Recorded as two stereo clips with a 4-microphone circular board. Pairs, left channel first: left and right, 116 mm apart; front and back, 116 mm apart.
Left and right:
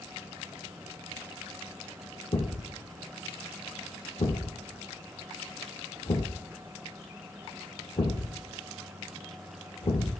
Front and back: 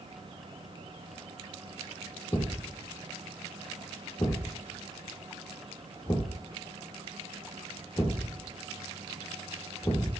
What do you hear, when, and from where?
2.3 s a thud: 65° left, 1.4 m